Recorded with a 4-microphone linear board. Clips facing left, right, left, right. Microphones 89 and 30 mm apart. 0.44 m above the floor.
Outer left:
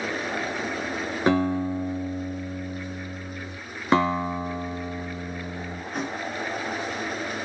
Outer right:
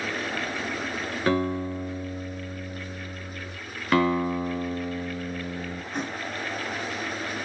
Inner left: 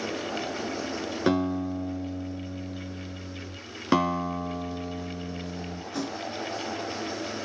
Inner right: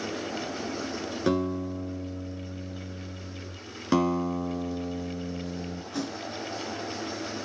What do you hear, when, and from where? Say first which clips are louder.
1.3 s a guitar: outer left 3 dB, inner left 2 dB; 20° left (ahead or behind), 5 m
3.9 s a guitar: even, even; 20° left (ahead or behind), 2 m
5.9 s a thud: outer left 2 dB, inner left 1 dB; centre (ahead or behind), 2 m